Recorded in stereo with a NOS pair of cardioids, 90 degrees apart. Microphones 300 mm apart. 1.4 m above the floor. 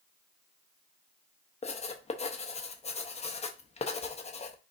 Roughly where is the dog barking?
No dog barking in this recording.